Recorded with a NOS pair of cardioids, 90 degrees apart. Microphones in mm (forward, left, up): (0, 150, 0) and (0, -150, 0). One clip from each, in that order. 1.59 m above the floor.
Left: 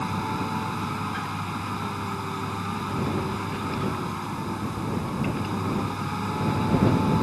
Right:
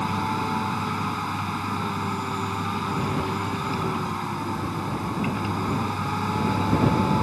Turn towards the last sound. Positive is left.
turn(degrees=-25)